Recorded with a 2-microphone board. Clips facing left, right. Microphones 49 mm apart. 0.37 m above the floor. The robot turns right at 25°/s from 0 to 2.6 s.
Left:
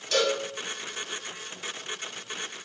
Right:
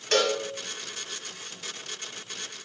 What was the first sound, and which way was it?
A cowbell, 60° right (ahead or behind).